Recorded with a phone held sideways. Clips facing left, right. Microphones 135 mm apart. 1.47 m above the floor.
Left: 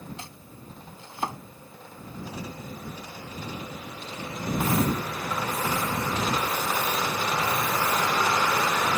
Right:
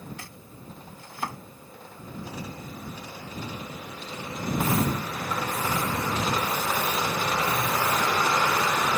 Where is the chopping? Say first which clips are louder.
Left 1 dB; 25° left (ahead or behind).